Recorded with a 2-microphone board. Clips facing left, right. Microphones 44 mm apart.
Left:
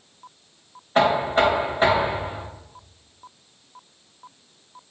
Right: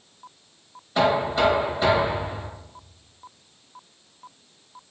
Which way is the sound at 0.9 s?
45° left (ahead or behind).